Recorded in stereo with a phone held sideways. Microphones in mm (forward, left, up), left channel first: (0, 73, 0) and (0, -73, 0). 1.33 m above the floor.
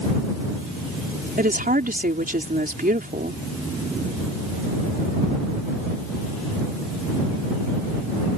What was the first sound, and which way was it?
A woman speaking, 85° right.